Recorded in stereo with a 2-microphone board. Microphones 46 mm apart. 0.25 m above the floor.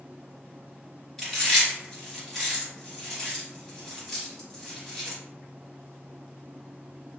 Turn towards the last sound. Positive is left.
turn(degrees=5)  # may be behind; listen again after turning